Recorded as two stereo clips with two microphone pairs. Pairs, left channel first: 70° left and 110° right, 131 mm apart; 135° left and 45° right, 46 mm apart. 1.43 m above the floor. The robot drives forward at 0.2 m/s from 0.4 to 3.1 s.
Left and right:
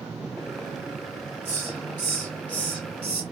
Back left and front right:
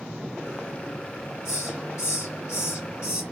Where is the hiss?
145° left, 1.7 m; by 3.2 s 150° left, 2.0 m.